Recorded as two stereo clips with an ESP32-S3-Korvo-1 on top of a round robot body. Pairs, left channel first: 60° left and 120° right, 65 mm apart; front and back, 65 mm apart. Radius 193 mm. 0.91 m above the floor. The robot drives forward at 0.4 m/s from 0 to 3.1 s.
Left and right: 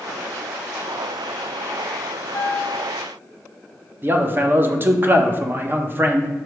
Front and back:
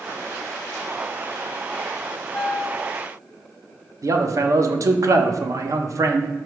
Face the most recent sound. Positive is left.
turn(degrees=-170)